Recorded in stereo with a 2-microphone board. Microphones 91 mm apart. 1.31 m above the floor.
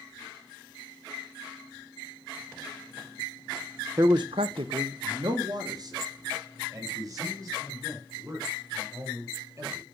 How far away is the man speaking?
About 0.6 m.